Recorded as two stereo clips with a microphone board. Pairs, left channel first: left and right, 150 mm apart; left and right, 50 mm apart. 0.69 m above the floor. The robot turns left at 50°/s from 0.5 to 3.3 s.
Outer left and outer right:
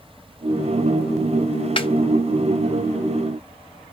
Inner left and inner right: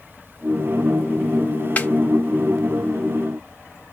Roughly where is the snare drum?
Left.